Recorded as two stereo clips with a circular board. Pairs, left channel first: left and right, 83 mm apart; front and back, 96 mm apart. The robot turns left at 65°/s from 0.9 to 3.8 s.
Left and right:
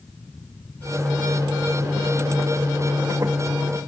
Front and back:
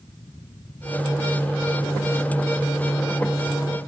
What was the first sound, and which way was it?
Only background noise.